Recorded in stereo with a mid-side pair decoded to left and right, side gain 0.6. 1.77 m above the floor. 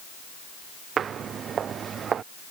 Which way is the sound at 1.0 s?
45° right.